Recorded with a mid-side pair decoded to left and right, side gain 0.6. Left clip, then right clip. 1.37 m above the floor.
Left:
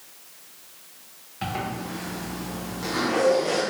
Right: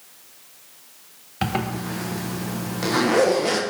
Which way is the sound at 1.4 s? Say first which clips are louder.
Right 4 dB; 55° right.